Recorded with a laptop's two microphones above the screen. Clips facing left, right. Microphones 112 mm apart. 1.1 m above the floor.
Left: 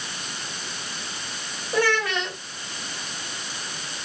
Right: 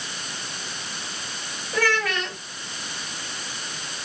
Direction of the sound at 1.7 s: 30° left (ahead or behind).